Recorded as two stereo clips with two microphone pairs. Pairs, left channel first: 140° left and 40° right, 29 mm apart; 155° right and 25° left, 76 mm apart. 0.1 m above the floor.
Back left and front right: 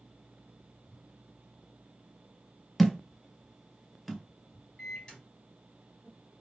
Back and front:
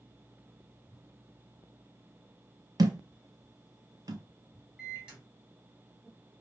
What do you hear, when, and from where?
2.8 s a thud: 50° left, 0.5 m
4.8 s a microwave: 95° left, 1.7 m